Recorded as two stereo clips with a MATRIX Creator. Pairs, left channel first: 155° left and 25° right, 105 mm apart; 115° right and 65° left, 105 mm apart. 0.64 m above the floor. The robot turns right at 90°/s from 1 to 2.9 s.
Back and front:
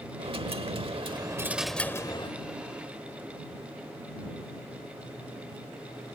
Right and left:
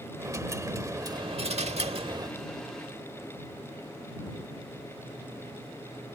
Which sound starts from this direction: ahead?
A dropped coin, at 0.2 s.